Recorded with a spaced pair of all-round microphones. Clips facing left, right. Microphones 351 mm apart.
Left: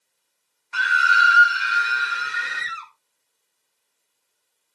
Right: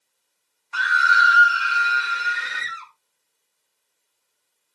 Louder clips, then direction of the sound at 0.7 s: Even; 35° left (ahead or behind).